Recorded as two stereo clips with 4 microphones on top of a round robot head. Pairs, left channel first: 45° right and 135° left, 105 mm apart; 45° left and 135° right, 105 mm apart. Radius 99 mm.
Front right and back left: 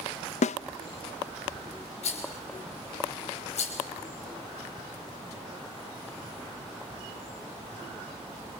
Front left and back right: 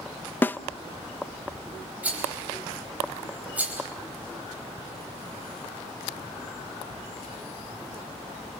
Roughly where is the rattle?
Ahead right.